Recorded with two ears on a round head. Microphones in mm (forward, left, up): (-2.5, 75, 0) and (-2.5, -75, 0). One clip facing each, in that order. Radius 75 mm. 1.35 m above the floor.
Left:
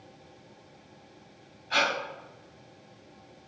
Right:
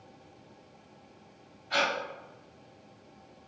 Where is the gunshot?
I don't hear a gunshot.